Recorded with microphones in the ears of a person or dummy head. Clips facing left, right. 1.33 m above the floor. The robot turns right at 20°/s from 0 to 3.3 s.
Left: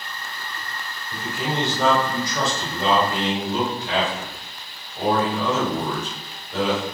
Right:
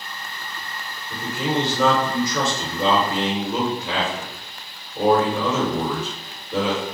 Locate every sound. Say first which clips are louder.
1.1 s a man speaking: right 3 dB; 115° right, 1.1 m; by 6.8 s 70° right, 1.1 m